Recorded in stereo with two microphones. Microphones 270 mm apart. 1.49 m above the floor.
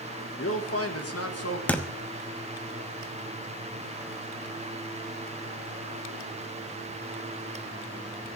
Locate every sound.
0.4 s a man speaking: 50° left (ahead or behind), 1.4 m; by 1.6 s 65° left (ahead or behind), 1.9 m
1.7 s a thud: 5° left (ahead or behind), 1.0 m